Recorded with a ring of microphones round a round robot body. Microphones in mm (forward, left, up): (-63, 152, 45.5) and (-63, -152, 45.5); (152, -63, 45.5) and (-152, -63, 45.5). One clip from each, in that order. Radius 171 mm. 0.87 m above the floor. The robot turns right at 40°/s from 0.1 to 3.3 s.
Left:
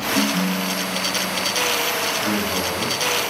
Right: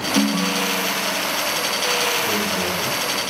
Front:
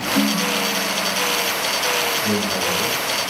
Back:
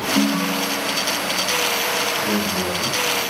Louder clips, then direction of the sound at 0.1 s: Right 4 dB, front 3 dB; 110° right.